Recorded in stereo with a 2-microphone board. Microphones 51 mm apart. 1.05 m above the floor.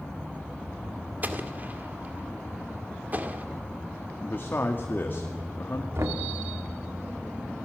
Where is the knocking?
65° right (ahead or behind), 1.7 m.